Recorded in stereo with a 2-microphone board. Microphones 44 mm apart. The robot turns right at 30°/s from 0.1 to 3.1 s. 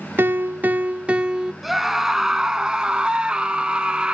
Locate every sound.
0.2 s a piano: 55° right, 0.6 m; by 1.5 s 15° right, 0.6 m
1.6 s a scream: 5° right (ahead or behind), 1.1 m; by 4.1 s 20° right (ahead or behind), 1.1 m